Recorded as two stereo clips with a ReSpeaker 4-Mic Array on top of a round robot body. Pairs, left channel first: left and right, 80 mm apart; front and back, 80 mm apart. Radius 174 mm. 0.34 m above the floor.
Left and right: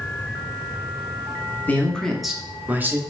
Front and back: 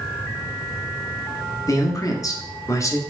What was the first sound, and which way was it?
A man speaking, 25° left.